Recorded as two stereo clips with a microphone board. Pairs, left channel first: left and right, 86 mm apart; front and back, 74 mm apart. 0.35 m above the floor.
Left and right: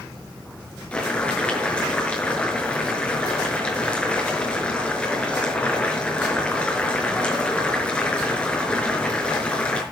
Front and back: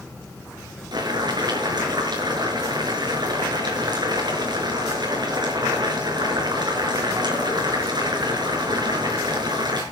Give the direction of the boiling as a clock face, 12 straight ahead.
6 o'clock.